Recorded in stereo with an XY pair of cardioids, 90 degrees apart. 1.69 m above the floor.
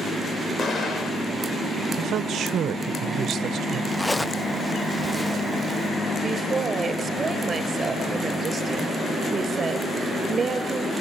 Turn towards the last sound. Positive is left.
turn(degrees=-40)